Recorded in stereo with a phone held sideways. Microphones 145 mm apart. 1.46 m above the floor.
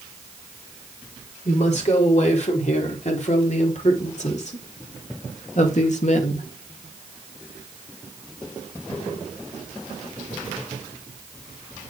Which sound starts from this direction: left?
A woman speaking, at 1.4 s.